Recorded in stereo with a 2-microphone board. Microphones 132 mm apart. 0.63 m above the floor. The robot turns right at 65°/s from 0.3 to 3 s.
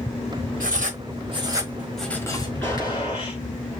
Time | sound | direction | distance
0.6 | writing | 85° right | 1.3 m
2.6 | a gunshot | 20° left (ahead or behind) | 2.5 m